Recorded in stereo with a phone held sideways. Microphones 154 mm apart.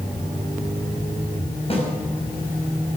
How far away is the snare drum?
About 5 m.